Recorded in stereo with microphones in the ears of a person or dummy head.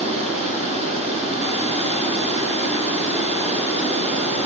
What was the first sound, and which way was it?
Running water, 30° right (ahead or behind).